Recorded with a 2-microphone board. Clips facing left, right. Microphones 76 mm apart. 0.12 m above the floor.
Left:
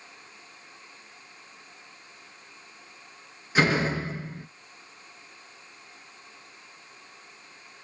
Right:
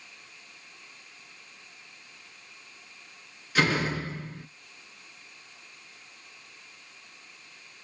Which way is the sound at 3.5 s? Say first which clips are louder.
Left 2 dB; 25° left (ahead or behind).